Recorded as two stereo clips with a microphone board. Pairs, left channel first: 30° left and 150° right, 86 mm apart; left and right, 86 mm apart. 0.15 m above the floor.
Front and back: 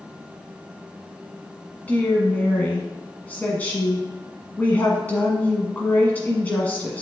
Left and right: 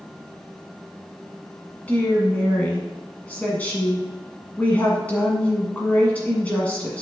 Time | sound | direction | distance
1.9 | a woman speaking | 55° left | 1.4 m